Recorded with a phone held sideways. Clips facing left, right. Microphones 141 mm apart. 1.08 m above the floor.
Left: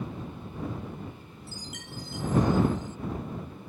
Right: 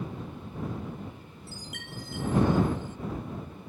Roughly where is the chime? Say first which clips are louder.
Even; right.